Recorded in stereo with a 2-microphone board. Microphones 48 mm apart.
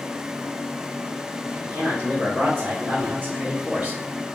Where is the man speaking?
70° right (ahead or behind), 1.7 m; by 4.0 s 25° right (ahead or behind), 2.0 m.